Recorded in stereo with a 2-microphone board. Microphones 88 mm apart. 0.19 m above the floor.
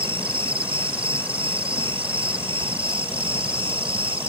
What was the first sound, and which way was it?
An insect, 75° right (ahead or behind).